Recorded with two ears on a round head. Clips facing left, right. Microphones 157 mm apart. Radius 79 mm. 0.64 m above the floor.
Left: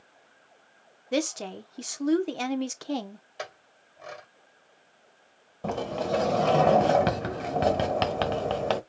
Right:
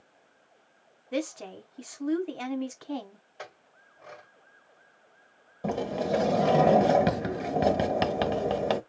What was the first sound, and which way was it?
A woman speaking, 50° left (ahead or behind).